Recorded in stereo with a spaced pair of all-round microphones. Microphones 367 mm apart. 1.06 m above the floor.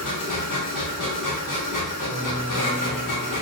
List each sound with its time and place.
0.0 s a machine running: 55° left (ahead or behind), 0.8 m
2.0 s a piano: 55° right (ahead or behind), 1.3 m